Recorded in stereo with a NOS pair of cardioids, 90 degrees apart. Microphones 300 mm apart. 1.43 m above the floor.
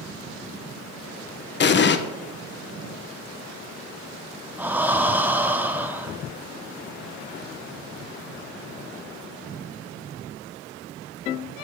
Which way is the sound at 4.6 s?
5° right.